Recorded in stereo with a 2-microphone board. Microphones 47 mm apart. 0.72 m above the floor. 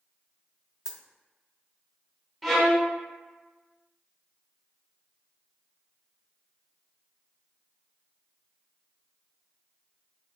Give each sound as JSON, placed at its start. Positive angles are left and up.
{"t": 0.8, "sound": "a dropped coin", "side_deg": -10, "distance_m": 0.6}
{"t": 2.4, "sound": "a violin", "side_deg": 0, "distance_m": 1.2}